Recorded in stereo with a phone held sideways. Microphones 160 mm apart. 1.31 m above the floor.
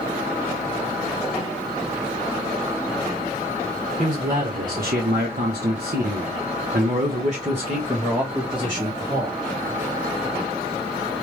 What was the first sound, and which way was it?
A man speaking, 50° right (ahead or behind).